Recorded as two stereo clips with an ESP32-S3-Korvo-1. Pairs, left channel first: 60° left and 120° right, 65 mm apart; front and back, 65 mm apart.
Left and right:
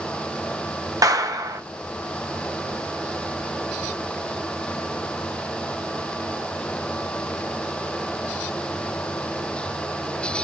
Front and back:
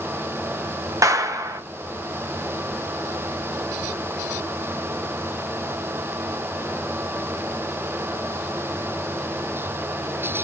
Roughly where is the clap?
Behind right.